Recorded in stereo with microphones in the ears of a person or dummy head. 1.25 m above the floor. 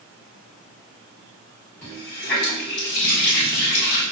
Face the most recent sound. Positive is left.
turn(degrees=5)  # may be behind; listen again after turning